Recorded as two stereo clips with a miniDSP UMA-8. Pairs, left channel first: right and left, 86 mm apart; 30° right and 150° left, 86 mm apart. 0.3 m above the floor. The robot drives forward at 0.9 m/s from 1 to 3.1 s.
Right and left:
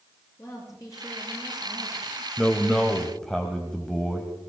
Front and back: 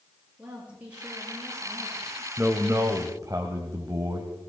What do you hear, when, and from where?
0.4 s a woman speaking: 140° right, 6.5 m; by 2.3 s 145° right, 7.5 m
2.4 s a man speaking: 165° right, 1.0 m; by 4.3 s 175° right, 1.4 m